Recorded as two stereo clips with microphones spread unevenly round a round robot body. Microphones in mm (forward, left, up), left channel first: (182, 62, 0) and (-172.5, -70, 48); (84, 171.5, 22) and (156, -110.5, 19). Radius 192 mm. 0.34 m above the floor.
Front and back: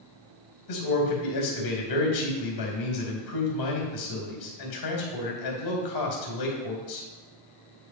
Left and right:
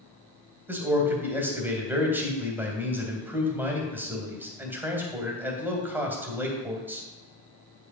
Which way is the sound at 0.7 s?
5° left.